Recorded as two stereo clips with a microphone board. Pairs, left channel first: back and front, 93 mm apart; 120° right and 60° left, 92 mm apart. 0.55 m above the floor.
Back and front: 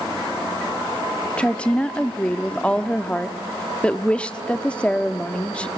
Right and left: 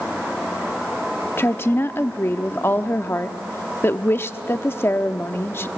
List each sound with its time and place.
1.4 s a woman speaking: 120° right, 0.6 m